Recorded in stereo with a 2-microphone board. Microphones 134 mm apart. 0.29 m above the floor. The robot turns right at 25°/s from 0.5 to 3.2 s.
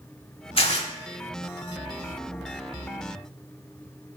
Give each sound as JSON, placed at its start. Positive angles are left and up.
{"t": 0.6, "sound": "tearing paper", "side_deg": 50, "distance_m": 0.9}